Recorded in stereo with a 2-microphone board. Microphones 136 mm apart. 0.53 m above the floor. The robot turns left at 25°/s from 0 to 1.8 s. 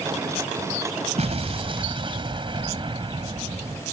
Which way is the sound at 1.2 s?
55° right (ahead or behind).